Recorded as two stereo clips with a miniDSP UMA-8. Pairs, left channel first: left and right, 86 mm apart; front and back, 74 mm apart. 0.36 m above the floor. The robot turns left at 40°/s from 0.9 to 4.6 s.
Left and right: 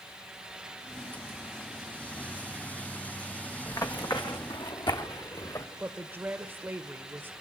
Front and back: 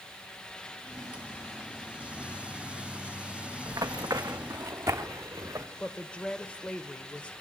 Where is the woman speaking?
60° right, 1.1 m.